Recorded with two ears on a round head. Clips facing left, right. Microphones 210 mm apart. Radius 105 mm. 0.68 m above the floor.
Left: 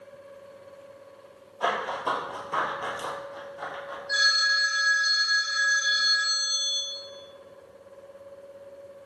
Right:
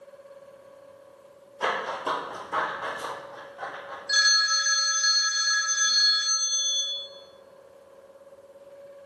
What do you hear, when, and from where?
1.6 s running footsteps: 35° right (ahead or behind), 0.8 m; by 4.0 s 35° left (ahead or behind), 1.4 m
4.1 s a phone ringing: 45° right (ahead or behind), 0.6 m